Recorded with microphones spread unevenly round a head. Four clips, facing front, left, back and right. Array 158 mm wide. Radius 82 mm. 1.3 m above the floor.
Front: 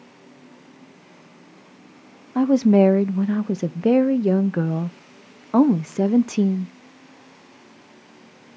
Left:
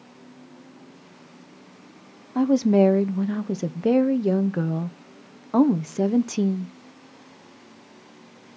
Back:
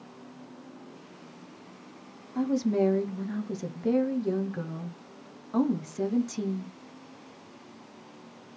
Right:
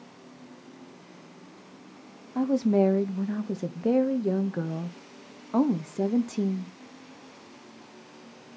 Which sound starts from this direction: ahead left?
A woman speaking, at 2.4 s.